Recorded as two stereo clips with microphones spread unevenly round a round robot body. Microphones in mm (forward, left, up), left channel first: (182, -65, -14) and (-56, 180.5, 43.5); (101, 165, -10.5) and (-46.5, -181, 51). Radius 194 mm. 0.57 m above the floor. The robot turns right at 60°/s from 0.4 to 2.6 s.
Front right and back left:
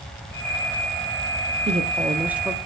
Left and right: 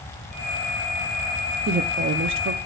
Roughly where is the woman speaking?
Behind.